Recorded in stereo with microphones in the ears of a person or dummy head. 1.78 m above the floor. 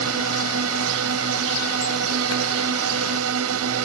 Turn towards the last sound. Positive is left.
turn(degrees=-80)